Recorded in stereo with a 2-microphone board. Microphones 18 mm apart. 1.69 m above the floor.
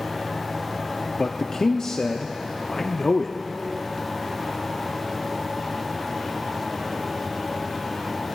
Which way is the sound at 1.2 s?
35° left (ahead or behind).